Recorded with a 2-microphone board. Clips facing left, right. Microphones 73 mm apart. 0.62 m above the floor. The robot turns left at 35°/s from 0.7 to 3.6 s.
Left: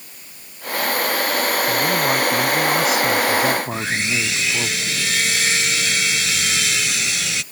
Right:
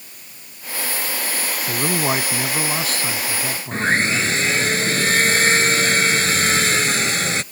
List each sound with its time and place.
1.7 s a man speaking: 145° right; by 4.7 s 145° left
3.7 s sawing: 40° right (ahead or behind)